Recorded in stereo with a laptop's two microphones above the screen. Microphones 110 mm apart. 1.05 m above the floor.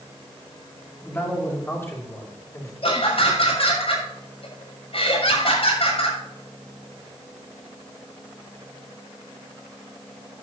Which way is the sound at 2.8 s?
60° left (ahead or behind).